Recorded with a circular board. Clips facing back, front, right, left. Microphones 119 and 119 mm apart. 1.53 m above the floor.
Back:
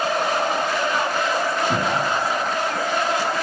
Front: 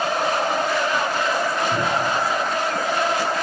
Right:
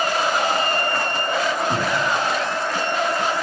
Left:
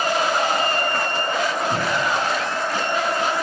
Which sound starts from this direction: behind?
A cupboard door, at 1.7 s.